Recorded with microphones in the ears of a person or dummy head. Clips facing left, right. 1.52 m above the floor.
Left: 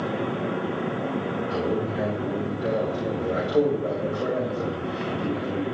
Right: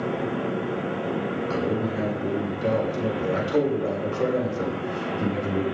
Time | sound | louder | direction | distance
1.5 | a man speaking | even | 70° right (ahead or behind) | 5.5 m